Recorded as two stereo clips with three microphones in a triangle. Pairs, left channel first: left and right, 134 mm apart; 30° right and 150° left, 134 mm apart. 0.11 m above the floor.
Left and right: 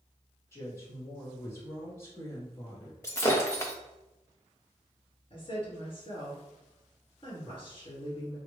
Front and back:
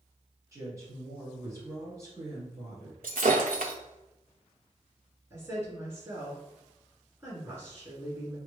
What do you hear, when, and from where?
0.5 s a woman speaking: 125° left, 1.4 m
3.0 s breaking glass: 155° left, 0.6 m
5.3 s a woman speaking: 100° left, 1.9 m